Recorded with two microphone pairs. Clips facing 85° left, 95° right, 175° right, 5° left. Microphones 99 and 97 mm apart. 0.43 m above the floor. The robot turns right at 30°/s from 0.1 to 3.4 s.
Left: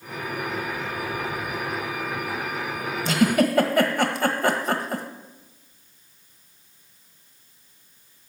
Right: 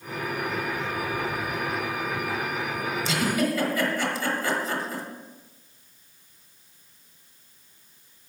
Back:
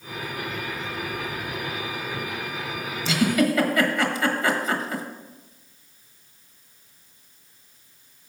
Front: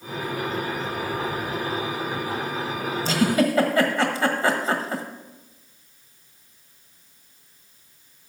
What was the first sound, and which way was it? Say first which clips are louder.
A giggle: left 6 dB, even; 50° left.